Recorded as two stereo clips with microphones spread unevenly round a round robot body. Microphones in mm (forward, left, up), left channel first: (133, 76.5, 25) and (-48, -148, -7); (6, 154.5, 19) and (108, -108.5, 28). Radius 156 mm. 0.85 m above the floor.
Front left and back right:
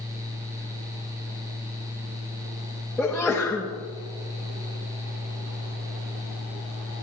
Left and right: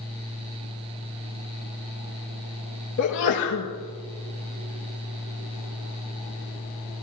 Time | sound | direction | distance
3.0 | a sneeze | 140° left | 1.4 m